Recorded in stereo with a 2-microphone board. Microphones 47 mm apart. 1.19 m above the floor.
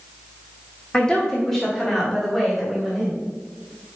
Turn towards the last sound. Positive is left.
turn(degrees=-5)  # may be behind; listen again after turning